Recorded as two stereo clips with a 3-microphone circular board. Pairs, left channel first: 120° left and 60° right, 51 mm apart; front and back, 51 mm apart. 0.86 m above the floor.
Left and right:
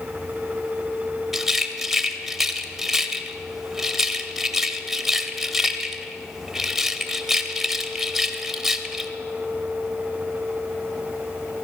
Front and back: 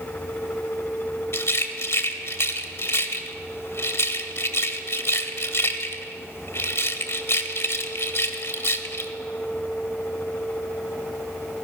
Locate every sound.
1.3 s a rattle: 20° left, 0.9 m